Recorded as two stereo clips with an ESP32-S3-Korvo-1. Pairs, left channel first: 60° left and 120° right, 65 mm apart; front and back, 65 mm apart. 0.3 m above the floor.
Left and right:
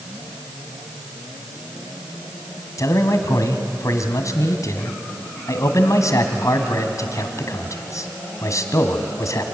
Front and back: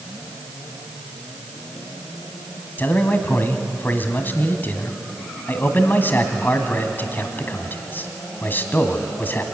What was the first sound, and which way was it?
A man speaking, 55° left.